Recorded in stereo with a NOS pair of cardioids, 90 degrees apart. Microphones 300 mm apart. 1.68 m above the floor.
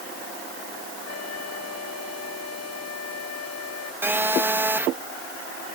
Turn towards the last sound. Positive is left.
turn(degrees=-5)